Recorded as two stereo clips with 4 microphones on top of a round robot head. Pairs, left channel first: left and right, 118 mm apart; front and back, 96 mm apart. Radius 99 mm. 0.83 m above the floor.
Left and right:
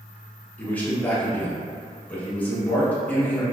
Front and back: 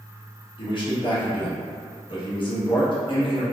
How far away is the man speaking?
About 1.1 m.